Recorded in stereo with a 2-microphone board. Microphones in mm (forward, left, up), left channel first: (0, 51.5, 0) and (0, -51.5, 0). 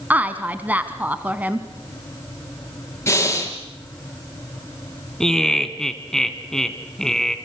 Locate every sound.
0.1 s a woman speaking: 15° right (ahead or behind), 1.2 m
3.1 s breathing: 25° left (ahead or behind), 3.5 m
5.2 s laughter: 5° left (ahead or behind), 2 m